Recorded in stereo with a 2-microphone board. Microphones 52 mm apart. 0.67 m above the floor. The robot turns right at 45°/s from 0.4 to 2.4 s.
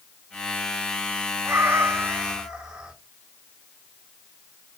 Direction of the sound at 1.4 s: 60° right.